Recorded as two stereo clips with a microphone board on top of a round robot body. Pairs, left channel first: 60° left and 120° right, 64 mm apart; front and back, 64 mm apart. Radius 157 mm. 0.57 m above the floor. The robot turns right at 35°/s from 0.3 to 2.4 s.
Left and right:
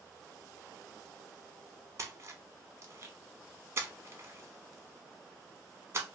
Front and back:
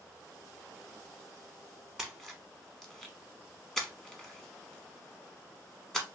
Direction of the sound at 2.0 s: 100° right.